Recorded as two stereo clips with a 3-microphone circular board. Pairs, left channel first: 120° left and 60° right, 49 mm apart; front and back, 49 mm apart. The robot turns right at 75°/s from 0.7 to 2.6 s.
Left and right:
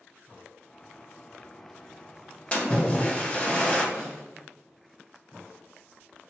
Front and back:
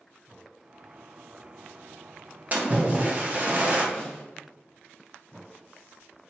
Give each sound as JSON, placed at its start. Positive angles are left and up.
{"t": 2.5, "sound": "a splash", "azimuth_deg": 165, "distance_m": 0.6}
{"t": 3.9, "sound": "a snare drum", "azimuth_deg": -100, "distance_m": 1.6}